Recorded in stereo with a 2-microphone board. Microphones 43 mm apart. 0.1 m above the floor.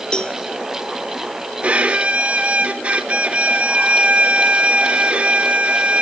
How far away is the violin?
About 1.2 m.